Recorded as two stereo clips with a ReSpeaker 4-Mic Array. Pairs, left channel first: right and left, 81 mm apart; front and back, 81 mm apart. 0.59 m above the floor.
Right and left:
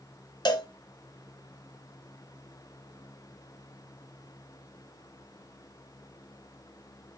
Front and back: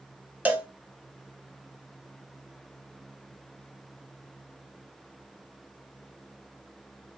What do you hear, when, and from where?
0.5 s a cowbell: 110° right, 0.9 m